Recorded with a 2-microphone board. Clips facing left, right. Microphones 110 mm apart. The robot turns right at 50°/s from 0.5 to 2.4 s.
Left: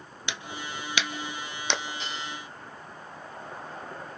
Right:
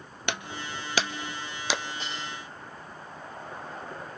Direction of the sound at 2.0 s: 40° right (ahead or behind).